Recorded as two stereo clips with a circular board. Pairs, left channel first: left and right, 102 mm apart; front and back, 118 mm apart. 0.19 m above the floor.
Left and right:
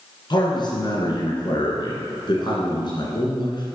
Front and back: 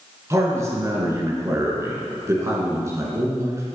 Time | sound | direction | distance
0.3 | a man speaking | 120° left | 2.5 m